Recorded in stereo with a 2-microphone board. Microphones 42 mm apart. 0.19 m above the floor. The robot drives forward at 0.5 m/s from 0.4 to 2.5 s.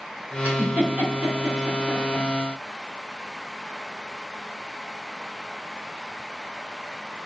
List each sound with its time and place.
0.4 s a giggle: 40° right (ahead or behind), 1.5 m; by 2.2 s 30° right (ahead or behind), 2 m